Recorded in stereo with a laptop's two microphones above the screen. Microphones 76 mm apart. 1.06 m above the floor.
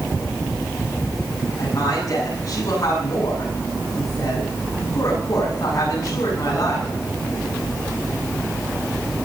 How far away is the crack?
I don't hear a crack.